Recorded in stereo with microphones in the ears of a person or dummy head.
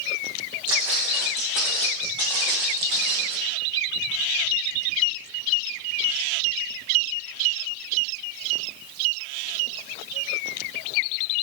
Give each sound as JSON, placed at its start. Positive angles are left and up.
{"t": 0.7, "sound": "footsteps", "side_deg": -10, "distance_m": 4.5}